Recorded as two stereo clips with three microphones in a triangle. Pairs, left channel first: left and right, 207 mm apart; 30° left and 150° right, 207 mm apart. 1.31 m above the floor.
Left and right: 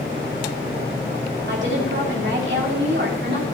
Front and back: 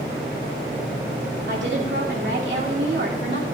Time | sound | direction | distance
1.5 | a woman speaking | 120° right | 2.5 m